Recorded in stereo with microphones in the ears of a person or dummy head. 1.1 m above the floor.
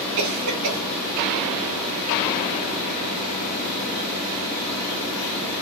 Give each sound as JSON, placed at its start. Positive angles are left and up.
{"t": 0.2, "sound": "a cough", "side_deg": -70, "distance_m": 5.0}